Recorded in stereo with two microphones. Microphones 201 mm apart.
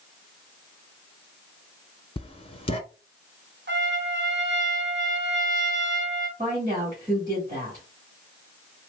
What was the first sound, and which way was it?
Writing, 30° left (ahead or behind).